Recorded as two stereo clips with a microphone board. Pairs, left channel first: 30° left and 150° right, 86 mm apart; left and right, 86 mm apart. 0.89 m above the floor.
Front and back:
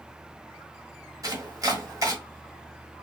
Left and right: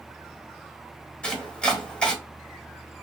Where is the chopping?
165° left, 1.4 m.